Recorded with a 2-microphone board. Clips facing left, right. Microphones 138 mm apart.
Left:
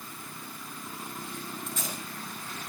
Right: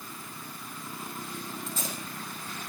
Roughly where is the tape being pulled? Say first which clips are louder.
Right 1 dB; right.